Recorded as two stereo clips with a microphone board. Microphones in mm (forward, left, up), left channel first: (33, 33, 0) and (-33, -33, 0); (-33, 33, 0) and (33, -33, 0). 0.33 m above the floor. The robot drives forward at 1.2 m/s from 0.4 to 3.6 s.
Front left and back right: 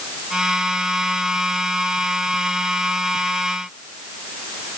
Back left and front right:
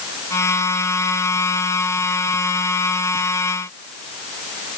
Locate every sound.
Only background noise.